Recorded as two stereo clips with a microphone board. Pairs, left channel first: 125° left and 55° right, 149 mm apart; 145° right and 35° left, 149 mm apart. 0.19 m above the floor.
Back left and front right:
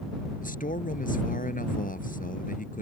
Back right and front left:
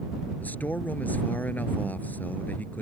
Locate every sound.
0.4 s a man speaking: 135° left